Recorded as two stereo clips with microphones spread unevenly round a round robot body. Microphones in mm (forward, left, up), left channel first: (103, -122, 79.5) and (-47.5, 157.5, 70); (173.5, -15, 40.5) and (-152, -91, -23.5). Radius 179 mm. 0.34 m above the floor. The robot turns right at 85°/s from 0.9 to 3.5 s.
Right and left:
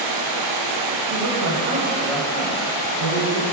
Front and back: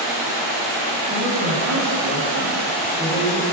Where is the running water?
100° left, 3 m; by 3.5 s 40° right, 3 m.